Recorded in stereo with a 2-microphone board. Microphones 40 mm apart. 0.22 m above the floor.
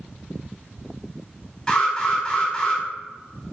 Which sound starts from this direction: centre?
An alarm, at 1.7 s.